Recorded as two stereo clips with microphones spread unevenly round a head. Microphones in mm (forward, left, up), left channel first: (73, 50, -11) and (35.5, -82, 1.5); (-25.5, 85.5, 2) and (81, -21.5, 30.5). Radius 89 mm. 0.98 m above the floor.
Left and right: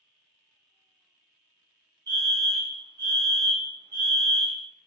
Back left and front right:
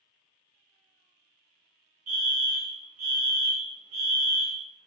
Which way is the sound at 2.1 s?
55° right.